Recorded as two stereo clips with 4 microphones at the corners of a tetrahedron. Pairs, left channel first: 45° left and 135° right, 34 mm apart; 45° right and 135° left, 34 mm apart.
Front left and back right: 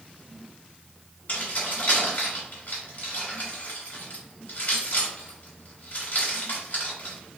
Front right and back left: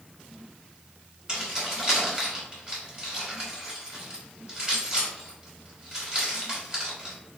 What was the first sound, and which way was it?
Keys jangling, 70° left.